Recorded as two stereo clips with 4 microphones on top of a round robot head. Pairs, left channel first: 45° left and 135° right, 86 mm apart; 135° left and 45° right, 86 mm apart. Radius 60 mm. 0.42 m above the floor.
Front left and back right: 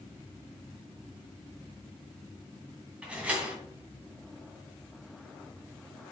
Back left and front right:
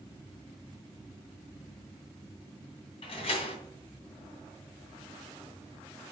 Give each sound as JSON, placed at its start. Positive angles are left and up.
{"t": 3.0, "sound": "a door slam", "azimuth_deg": 150, "distance_m": 2.5}